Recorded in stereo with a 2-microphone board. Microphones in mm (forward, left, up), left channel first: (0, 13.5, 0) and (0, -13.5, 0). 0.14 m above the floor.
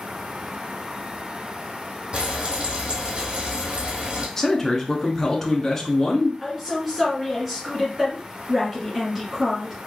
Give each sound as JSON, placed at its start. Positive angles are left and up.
{"t": 2.1, "sound": "frying", "side_deg": -40, "distance_m": 2.0}
{"t": 4.4, "sound": "a man speaking", "side_deg": 10, "distance_m": 1.2}
{"t": 6.4, "sound": "a woman speaking", "side_deg": -10, "distance_m": 1.8}